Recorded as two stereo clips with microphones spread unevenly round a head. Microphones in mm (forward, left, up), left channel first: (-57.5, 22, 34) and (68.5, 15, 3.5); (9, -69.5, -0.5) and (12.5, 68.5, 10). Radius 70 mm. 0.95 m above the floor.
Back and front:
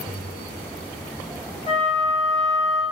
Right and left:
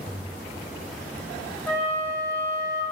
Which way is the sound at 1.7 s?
165° right.